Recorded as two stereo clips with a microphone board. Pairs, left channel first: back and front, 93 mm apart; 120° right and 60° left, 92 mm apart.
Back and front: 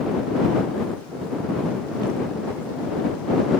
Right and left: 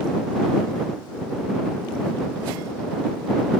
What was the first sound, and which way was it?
Only background noise.